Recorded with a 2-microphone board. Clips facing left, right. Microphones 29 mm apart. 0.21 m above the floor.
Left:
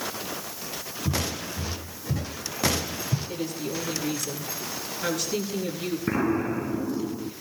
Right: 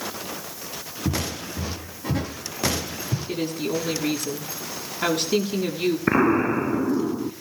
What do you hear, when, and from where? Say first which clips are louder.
1.1 s footsteps: right 2 dB; 75° right (ahead or behind), 6.5 m; by 3.2 s 85° right, 9 m
3.3 s a woman speaking: right 5 dB; 60° right (ahead or behind), 8 m
6.1 s an explosion: right 5 dB; 40° right (ahead or behind), 0.7 m